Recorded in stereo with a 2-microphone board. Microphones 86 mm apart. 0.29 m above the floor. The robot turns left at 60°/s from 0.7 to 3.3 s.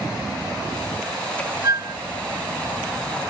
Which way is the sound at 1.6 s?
45° right (ahead or behind).